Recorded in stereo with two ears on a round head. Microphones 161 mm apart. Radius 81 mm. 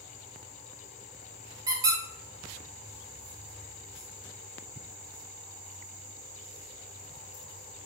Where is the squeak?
20° right (ahead or behind), 0.6 m.